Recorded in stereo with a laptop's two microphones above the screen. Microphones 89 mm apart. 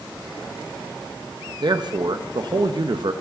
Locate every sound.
1.6 s a man speaking: 55° right (ahead or behind), 0.7 m